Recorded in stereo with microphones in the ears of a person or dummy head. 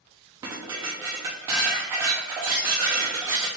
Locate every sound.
0.4 s dishes clattering: 15° right (ahead or behind), 0.5 m